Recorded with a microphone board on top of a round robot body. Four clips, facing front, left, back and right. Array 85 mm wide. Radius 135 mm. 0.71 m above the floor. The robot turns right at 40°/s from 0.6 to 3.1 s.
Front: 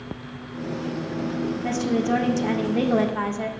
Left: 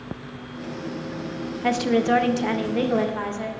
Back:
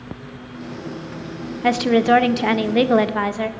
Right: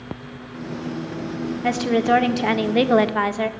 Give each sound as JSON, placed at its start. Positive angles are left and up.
{"t": 1.6, "sound": "a woman speaking", "azimuth_deg": 175, "distance_m": 0.6}